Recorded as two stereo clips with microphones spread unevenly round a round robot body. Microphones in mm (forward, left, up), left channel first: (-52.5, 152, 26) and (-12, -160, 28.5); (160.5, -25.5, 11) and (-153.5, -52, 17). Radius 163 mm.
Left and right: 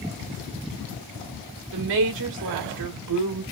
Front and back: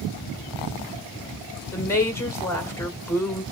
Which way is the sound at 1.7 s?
75° right.